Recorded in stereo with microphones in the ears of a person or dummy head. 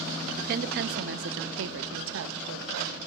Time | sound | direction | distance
0.4 | a woman speaking | 40° right (ahead or behind) | 0.6 m